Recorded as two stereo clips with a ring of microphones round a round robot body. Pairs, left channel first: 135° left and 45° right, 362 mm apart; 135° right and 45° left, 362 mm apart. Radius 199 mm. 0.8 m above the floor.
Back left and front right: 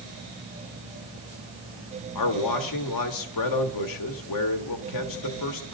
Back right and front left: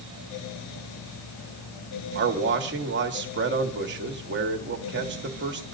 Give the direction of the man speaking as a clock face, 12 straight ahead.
9 o'clock.